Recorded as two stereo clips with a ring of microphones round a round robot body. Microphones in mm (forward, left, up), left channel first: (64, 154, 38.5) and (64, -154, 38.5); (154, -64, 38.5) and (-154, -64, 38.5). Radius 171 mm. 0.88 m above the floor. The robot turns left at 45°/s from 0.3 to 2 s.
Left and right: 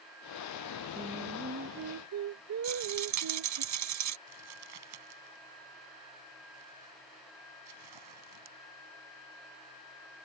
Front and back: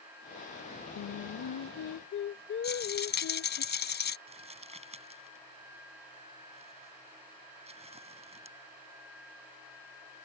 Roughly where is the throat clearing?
I don't hear throat clearing.